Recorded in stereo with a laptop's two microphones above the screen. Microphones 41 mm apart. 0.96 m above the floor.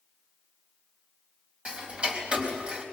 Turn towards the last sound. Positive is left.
turn(degrees=-30)  # may be behind; listen again after turning